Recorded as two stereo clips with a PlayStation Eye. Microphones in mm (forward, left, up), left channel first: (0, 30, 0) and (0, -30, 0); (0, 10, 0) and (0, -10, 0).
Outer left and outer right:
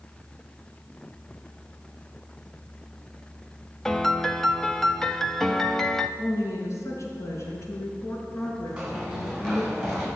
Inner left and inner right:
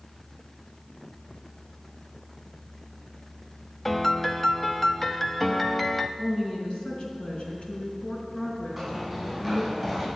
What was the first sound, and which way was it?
A piano, 5° left (ahead or behind).